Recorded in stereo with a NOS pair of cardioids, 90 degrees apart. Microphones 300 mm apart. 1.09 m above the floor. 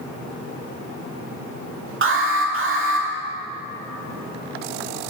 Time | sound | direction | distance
2.0 | an alarm | 45° right | 2.5 m